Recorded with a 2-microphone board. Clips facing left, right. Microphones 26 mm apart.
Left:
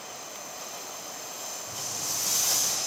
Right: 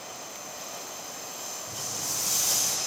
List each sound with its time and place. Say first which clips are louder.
1.7 s footsteps: even; 15° right (ahead or behind), 4 m; by 2.8 s 5° left (ahead or behind), 2.5 m